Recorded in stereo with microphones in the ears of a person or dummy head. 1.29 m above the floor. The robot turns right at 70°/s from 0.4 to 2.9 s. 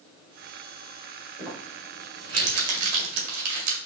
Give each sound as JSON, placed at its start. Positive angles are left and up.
{"t": 1.4, "sound": "crumpling", "side_deg": -10, "distance_m": 1.8}